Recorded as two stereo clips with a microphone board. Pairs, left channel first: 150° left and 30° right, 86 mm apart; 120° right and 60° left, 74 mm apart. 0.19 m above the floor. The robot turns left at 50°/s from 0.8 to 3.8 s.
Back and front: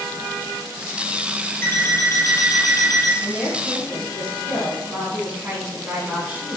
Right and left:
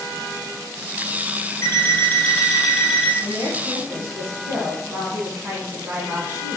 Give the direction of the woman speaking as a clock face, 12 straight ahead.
10 o'clock.